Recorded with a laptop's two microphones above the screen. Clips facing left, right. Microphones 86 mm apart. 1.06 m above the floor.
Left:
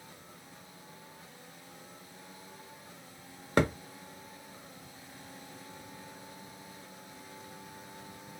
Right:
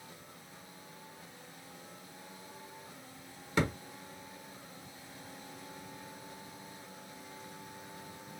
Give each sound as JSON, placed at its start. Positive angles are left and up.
{"t": 3.6, "sound": "a thud", "side_deg": 55, "distance_m": 1.0}